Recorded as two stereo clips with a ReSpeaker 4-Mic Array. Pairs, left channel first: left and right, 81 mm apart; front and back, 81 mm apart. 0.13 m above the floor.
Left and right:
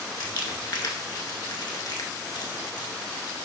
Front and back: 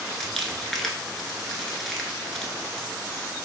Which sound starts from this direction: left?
Crumpling, at 0.2 s.